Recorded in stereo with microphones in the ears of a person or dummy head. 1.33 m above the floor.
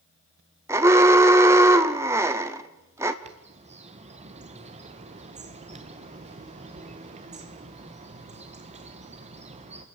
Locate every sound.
0.7 s an alarm: 10° right (ahead or behind), 1.0 m
3.2 s a bird: 30° right (ahead or behind), 1.5 m